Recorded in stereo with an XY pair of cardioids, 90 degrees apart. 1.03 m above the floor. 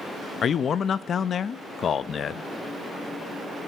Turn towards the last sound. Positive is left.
turn(degrees=60)